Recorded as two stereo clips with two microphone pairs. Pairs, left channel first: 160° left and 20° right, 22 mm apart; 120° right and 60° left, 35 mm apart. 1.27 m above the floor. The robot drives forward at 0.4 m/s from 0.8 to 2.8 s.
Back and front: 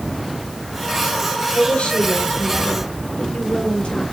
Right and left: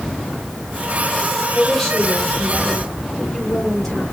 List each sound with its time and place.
1.5 s a woman speaking: 155° left, 4 m; by 4.0 s 160° left, 4.5 m